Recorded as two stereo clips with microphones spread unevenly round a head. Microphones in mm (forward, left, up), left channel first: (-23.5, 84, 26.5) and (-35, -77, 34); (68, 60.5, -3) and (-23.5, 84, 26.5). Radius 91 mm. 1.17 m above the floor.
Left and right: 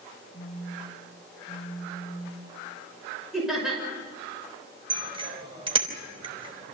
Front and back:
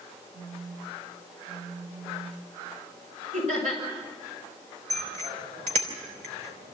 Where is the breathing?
No breathing in this recording.